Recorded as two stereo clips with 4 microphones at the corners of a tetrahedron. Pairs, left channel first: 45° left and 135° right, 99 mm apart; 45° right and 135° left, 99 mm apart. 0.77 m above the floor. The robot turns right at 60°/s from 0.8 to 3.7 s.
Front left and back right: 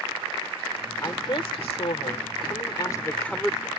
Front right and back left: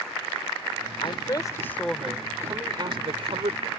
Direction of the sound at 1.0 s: 15° right.